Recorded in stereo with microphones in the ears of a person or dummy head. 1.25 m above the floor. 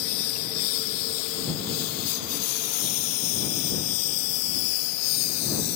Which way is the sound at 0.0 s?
80° left.